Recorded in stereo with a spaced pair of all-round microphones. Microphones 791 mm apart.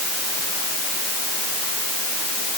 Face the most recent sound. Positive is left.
No sound to turn to.